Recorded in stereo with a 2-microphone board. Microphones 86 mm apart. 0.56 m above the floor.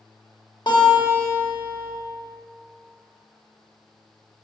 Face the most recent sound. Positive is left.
turn(degrees=65)  # may be behind; listen again after turning